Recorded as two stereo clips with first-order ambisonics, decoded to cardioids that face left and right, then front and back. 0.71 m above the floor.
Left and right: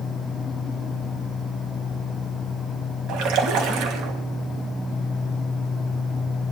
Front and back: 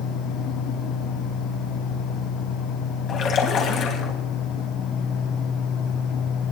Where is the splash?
60° right, 3.5 m.